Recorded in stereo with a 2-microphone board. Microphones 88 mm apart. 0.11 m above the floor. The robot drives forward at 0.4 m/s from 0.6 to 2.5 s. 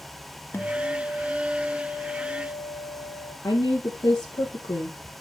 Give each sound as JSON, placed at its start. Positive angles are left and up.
{"t": 0.5, "sound": "a guitar", "side_deg": 25, "distance_m": 0.7}
{"t": 3.4, "sound": "a woman speaking", "side_deg": 55, "distance_m": 3.0}